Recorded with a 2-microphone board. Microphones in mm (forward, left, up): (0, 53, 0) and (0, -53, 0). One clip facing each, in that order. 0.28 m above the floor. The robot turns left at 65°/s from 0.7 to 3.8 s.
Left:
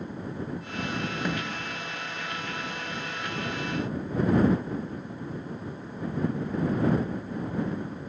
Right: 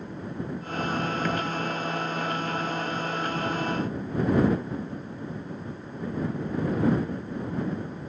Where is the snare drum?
15° left (ahead or behind); by 1.5 s 5° right (ahead or behind).